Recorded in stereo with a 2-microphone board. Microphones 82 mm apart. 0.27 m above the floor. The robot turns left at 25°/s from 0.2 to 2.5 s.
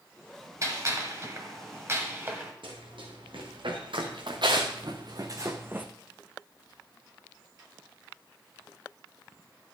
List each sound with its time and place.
0.6 s a gunshot: 40° right (ahead or behind), 1.8 m; by 2.5 s 25° right (ahead or behind), 1.8 m
2.6 s running footsteps: 85° right, 4 m; by 5.9 s 20° right (ahead or behind), 1.3 m